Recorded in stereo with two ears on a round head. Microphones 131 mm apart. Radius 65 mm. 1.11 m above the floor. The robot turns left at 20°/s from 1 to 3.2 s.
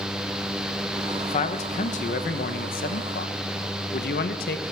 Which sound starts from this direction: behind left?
A man speaking, at 1.3 s.